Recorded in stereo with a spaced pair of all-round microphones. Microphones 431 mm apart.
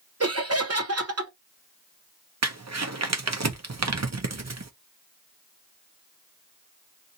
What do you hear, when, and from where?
0.2 s laughter: 30° right (ahead or behind), 1.1 m
2.4 s crumpling: 35° right (ahead or behind), 0.7 m